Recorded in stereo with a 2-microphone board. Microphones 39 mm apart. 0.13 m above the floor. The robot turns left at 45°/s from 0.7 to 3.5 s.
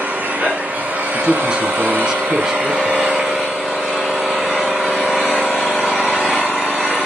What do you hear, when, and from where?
0.0 s an engine running: 55° right, 4.5 m; by 7.1 s straight behind, 4.5 m
1.1 s a man speaking: 25° right (ahead or behind), 1.4 m; by 3.0 s 5° right (ahead or behind), 1.4 m